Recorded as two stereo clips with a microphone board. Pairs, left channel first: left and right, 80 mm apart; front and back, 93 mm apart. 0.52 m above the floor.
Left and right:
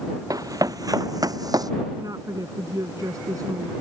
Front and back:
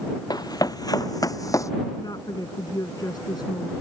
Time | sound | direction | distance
0.3 | running footsteps | 45° right | ?
2.0 | a woman speaking | 45° right | ?